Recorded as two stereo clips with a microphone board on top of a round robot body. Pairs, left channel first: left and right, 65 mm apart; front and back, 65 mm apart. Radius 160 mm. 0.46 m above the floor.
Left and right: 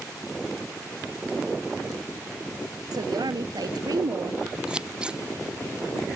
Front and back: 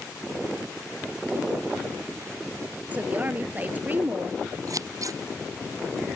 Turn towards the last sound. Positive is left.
turn(degrees=-165)